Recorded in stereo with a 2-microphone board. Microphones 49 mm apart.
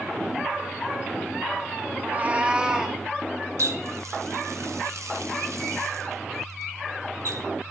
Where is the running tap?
85° right, 0.6 m.